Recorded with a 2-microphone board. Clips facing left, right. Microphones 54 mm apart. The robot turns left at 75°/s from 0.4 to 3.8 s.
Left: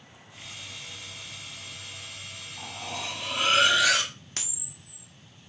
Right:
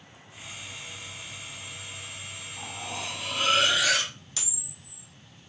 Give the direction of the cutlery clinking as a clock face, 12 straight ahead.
5 o'clock.